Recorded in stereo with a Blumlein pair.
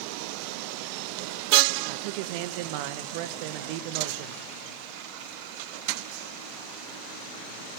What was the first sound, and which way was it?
A man speaking, 45° right.